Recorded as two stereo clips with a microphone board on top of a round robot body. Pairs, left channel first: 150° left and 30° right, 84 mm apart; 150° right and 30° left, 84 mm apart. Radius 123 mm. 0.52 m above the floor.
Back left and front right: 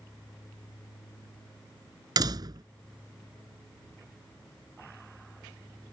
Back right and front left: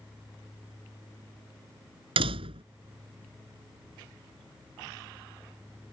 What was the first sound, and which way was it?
A door slam, 15° left.